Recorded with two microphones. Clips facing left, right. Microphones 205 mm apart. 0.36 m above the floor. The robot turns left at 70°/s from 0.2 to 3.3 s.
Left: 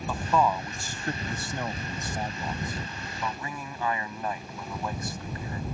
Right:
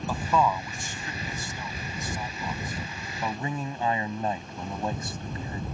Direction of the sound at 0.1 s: 5° right (ahead or behind).